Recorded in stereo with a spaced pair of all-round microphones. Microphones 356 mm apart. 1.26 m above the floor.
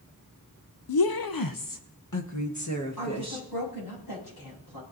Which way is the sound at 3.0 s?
70° left (ahead or behind).